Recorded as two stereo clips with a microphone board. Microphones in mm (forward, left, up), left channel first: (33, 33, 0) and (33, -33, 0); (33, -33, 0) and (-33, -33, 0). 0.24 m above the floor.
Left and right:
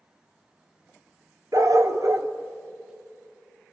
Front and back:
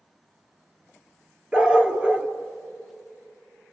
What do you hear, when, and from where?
1.5 s a dog barking: 110° right, 1.3 m